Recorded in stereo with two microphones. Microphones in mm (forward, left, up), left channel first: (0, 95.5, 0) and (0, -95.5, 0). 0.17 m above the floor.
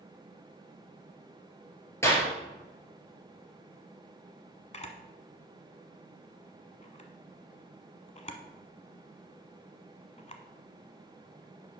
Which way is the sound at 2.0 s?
15° left (ahead or behind).